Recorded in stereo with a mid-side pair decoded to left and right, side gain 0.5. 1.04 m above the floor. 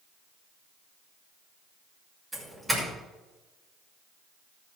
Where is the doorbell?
10° right, 6 m.